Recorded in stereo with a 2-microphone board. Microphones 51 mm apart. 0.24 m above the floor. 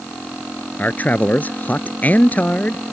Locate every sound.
0.8 s a man speaking: 35° left (ahead or behind)